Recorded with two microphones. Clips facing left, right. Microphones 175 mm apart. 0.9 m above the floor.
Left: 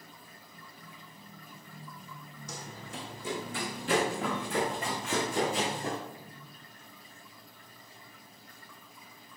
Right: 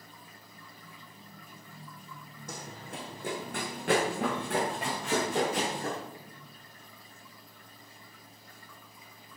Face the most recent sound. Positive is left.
turn(degrees=-70)  # may be behind; listen again after turning